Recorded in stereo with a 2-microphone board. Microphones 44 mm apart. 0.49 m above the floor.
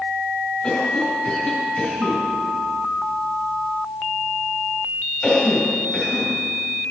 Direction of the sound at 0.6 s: 15° left (ahead or behind).